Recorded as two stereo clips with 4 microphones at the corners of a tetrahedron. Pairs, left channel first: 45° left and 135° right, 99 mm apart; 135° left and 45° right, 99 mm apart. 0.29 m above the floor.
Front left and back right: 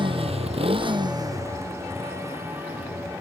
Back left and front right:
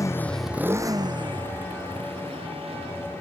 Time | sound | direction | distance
0.0 | a motorcycle | 170° right | ?